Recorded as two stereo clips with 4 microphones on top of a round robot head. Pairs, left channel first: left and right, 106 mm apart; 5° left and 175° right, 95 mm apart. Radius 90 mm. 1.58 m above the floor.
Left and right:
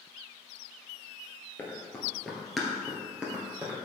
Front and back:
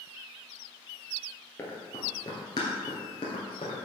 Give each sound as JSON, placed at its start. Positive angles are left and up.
{"t": 1.6, "sound": "running footsteps", "azimuth_deg": 40, "distance_m": 1.7}